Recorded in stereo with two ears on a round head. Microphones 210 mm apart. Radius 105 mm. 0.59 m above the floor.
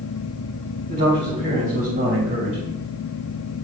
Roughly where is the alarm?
No alarm in this recording.